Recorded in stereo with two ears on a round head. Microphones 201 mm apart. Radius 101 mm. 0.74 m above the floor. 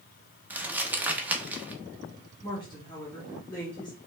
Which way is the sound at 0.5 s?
10° right (ahead or behind).